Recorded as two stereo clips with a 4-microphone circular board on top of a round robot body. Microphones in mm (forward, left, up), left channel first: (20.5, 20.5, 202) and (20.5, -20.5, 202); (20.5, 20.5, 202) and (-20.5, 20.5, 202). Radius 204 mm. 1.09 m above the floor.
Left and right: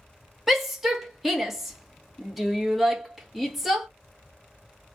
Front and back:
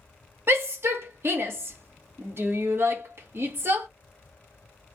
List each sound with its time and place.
0.5 s a shout: 175° right, 1.4 m